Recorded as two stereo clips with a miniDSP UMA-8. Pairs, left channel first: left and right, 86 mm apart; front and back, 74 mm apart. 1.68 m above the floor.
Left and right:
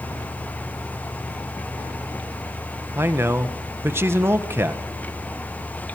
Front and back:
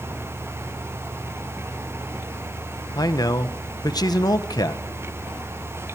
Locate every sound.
3.0 s a man speaking: 30° right, 1.3 m